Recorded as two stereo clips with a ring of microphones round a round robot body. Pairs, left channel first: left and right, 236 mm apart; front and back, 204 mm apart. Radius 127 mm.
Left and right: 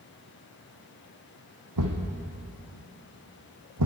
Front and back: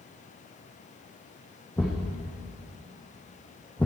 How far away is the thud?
About 2.5 m.